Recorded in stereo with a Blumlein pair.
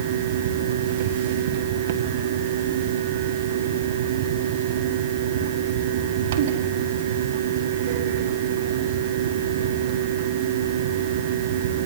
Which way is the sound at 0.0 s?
55° right.